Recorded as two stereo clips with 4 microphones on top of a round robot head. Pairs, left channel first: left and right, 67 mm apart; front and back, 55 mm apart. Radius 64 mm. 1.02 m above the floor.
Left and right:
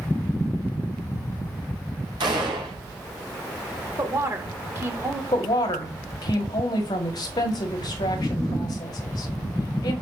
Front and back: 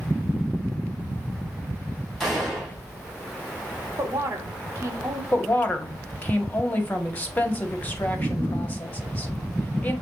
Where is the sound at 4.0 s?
140° right, 2.5 m.